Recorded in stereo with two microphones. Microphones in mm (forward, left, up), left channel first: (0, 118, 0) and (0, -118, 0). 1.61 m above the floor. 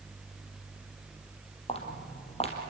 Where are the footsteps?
25° left (ahead or behind), 3.5 m.